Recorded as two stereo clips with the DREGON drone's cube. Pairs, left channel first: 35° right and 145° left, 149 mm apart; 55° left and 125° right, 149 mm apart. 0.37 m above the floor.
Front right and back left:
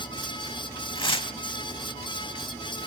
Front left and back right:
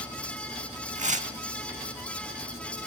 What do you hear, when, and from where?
0.9 s tearing paper: 90° right, 0.6 m